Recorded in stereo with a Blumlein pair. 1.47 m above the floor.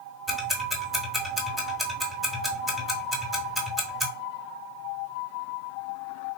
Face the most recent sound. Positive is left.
turn(degrees=-5)